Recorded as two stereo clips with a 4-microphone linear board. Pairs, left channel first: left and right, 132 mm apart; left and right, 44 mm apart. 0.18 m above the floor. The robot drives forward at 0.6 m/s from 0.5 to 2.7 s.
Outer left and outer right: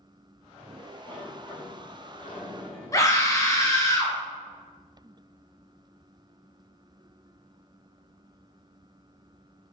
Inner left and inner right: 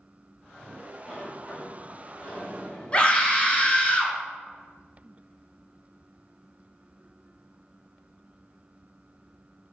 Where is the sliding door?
15° left (ahead or behind), 1.4 m; by 3.7 s 10° left (ahead or behind), 2.5 m.